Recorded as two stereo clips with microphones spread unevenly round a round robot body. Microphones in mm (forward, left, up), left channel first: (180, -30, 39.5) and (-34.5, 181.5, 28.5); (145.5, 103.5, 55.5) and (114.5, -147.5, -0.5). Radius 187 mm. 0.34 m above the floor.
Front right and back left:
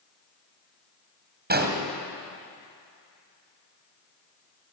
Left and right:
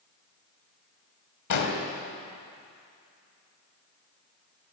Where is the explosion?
80° left, 3 m.